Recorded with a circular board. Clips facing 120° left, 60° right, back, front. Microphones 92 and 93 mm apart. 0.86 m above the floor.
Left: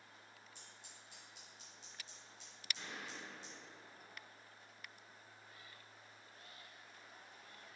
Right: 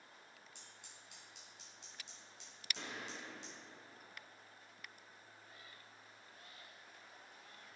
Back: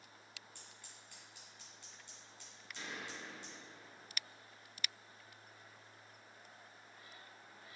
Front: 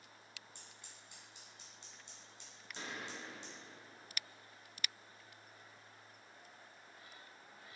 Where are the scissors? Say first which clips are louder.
Even, even; 70° right, 3 m.